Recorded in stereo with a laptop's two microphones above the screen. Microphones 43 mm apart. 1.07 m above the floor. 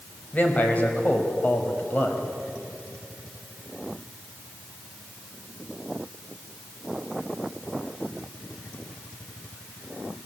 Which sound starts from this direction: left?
A man speaking, at 0.3 s.